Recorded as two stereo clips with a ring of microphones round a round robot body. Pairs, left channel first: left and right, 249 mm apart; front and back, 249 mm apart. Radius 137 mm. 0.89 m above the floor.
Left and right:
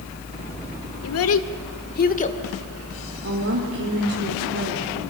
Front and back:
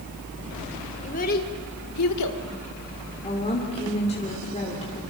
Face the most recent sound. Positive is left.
turn(degrees=-65)